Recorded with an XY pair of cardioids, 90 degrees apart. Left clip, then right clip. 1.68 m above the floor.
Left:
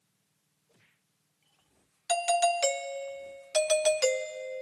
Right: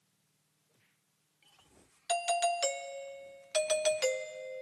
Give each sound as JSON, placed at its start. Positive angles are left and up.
{"t": 2.1, "sound": "a doorbell", "azimuth_deg": 40}